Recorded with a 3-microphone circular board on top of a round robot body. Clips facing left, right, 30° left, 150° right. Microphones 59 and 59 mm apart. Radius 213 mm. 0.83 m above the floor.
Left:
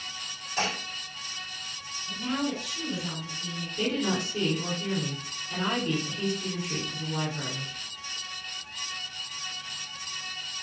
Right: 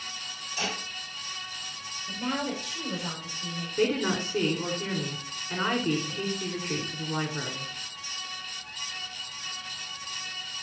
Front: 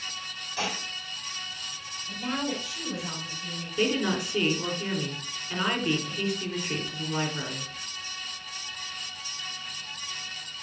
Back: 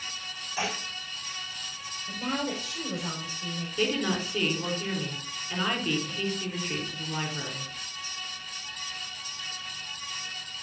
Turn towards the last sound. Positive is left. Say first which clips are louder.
# right 2 dB, front 2 dB
turn(degrees=-55)